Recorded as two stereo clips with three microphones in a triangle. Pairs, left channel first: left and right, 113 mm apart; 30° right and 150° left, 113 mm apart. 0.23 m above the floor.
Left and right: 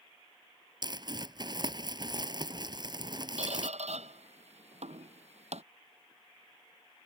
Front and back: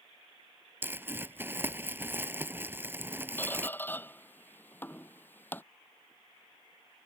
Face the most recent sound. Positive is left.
turn(degrees=-100)